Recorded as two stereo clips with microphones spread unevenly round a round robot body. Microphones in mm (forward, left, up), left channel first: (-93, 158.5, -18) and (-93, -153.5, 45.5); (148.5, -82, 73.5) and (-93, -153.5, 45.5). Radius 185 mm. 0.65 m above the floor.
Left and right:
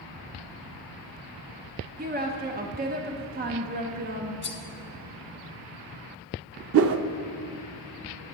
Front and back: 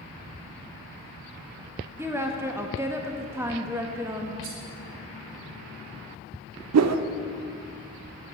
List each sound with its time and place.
2.0 s a woman speaking: 130° right, 0.8 m
4.4 s cutlery clinking: 140° left, 1.3 m
6.7 s a whoosh: 140° right, 0.6 m